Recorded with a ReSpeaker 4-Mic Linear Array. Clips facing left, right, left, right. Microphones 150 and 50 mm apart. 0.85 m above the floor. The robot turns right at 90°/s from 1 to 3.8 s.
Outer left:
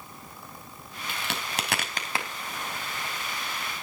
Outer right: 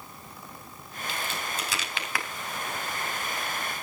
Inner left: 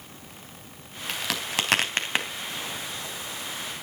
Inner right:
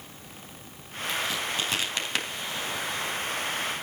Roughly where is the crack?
Left.